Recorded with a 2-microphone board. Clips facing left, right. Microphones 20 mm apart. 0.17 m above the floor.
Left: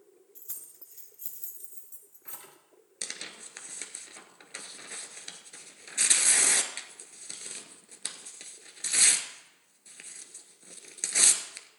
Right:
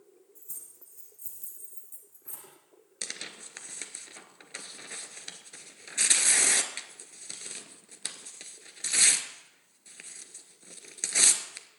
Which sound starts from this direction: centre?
Tearing paper, at 3.0 s.